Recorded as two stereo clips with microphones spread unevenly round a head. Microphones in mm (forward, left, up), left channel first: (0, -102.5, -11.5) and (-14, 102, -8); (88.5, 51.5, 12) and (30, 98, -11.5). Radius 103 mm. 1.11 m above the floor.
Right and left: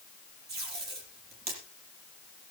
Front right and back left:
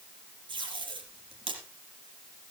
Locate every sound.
0.5 s tape being pulled: 135° left, 5.5 m